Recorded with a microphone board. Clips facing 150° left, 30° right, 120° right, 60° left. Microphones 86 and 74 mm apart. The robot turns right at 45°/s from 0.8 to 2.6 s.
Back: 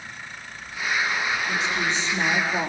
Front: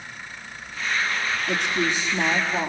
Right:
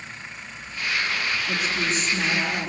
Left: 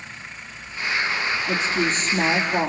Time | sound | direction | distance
1.5 | a woman speaking | 15° left | 3.5 m